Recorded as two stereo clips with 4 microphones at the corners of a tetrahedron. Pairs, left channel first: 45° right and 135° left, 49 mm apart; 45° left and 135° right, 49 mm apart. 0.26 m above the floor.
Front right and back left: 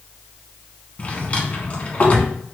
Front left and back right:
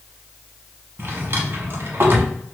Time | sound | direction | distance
1.0 | a drawer | 100° right | 0.9 m